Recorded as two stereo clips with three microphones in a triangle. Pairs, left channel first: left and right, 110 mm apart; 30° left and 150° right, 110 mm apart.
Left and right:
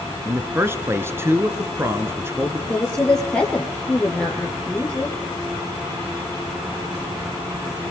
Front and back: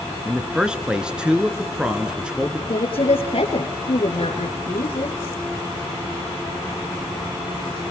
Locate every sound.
0.2 s a man speaking: 80° right, 1.4 m
2.7 s a woman speaking: 10° left, 3 m